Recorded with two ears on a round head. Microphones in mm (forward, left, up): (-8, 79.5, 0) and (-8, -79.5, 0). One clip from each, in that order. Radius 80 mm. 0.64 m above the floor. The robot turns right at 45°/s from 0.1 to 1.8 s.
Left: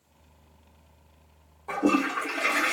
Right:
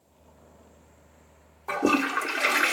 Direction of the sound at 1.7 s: 40° right (ahead or behind).